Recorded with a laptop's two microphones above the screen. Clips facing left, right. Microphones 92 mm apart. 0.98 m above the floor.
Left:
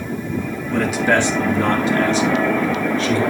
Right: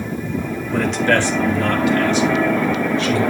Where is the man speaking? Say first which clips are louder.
Even; 5° right (ahead or behind), 0.6 m; by 3.2 s 40° left (ahead or behind), 2.5 m.